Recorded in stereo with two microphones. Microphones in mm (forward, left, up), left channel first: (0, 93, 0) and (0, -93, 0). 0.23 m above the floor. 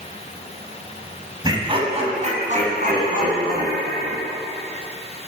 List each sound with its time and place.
1.4 s laughter: 20° right (ahead or behind), 1.2 m; by 4.2 s 55° right (ahead or behind), 2.5 m